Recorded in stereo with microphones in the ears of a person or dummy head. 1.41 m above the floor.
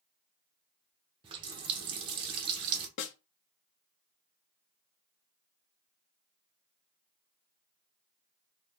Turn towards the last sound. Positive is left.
turn(degrees=60)  # may be behind; listen again after turning